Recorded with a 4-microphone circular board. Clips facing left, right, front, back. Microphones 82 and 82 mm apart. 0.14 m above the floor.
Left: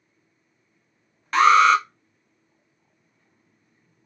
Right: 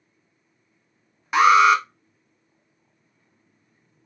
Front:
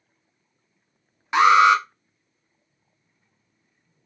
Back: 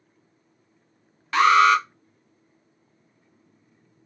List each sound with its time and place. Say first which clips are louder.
1.3 s an alarm: even, front 2 dB; 30° right, 0.8 m